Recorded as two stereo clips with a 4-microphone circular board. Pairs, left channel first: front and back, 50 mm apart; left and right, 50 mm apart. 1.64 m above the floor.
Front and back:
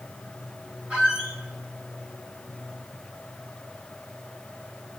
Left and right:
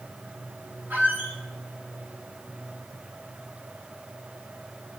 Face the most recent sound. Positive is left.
turn(degrees=-125)